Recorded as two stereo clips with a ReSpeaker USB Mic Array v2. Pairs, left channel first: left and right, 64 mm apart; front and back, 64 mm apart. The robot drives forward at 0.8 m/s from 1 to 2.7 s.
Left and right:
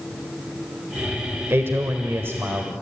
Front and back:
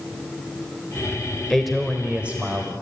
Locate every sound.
1.5 s a man speaking: 80° right, 1.3 m; by 2.8 s 135° right, 1.5 m